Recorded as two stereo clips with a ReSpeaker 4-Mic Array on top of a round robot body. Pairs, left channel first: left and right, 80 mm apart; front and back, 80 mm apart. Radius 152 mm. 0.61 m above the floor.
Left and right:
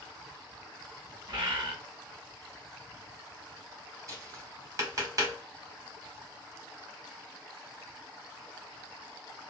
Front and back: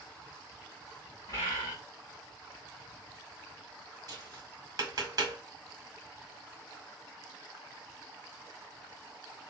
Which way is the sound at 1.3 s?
55° right.